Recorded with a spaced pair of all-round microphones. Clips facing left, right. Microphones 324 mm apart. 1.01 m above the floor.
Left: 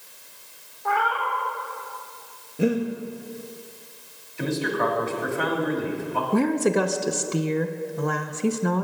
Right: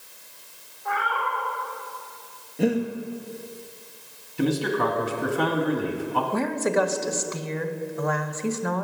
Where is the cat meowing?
75° left (ahead or behind), 1.4 m.